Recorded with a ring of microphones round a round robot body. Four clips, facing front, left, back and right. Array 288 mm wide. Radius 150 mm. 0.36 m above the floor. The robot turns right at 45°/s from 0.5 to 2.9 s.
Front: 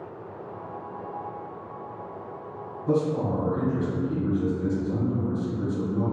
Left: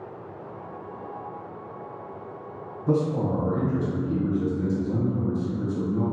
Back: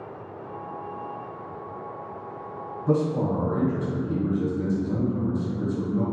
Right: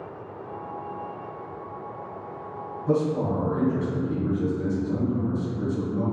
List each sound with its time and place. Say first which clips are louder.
2.9 s a man speaking: even, back 1 dB; 125° left, 1.5 m; by 6.0 s 130° left, 1.5 m